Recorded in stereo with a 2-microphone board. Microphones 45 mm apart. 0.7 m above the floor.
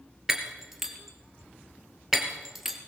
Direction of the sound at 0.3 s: 5° right (ahead or behind).